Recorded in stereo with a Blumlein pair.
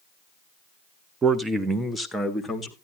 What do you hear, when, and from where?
1.2 s a man speaking: 15° right, 0.9 m; by 2.7 s 10° left, 1.8 m